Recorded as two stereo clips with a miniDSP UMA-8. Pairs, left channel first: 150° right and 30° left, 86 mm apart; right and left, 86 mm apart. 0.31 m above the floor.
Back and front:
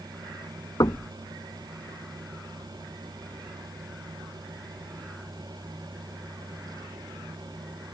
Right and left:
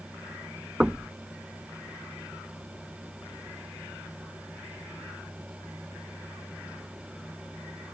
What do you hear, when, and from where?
0.8 s knocking: 170° left